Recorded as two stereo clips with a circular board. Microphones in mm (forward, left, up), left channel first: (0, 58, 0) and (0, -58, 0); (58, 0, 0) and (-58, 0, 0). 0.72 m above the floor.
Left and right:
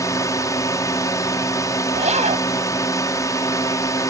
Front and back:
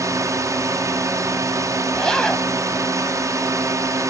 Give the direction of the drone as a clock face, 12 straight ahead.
8 o'clock.